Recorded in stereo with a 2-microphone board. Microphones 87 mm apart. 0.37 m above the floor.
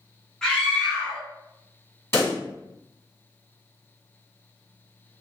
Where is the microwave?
No microwave in this recording.